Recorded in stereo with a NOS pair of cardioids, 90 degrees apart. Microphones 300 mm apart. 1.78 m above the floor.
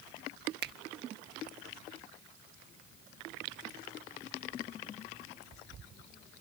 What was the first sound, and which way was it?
A finger snap, 35° right.